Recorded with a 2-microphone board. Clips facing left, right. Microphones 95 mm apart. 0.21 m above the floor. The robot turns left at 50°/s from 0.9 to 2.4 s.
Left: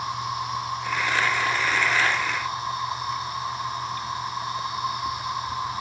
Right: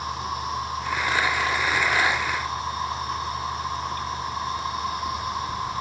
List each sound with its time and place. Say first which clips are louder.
0.0 s an insect: left 1 dB; 95° left, 4 m; by 5.8 s 20° left, 4 m